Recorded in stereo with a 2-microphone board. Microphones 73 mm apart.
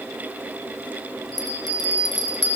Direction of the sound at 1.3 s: 70° left (ahead or behind).